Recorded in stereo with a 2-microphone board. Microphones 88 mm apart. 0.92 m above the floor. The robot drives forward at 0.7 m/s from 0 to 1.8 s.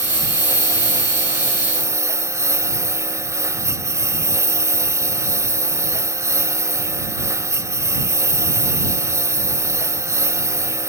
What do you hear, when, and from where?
0.0 s a lawn mower: 30° right (ahead or behind)